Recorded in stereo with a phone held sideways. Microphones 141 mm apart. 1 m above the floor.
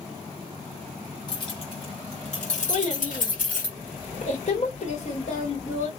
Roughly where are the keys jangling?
Left.